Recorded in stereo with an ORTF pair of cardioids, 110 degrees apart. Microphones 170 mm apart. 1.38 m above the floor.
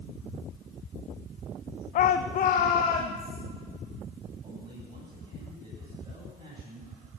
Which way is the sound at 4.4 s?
30° right.